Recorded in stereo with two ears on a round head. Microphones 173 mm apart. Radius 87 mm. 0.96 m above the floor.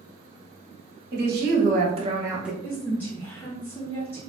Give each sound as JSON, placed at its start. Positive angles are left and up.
{"t": 1.1, "sound": "a woman speaking", "side_deg": -55, "distance_m": 1.1}
{"t": 2.6, "sound": "a woman speaking", "side_deg": 10, "distance_m": 0.6}